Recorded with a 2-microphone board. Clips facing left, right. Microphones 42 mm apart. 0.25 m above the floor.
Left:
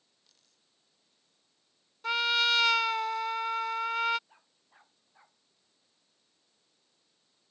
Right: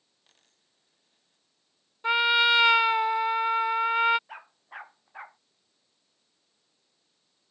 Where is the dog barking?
70° right (ahead or behind).